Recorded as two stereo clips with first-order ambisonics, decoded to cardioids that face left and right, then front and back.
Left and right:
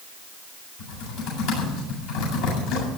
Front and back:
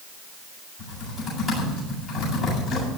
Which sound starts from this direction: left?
Typing on a keyboard, at 0.8 s.